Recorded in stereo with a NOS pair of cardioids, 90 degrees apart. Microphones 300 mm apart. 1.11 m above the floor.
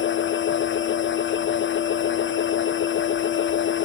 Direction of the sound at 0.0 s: 35° left.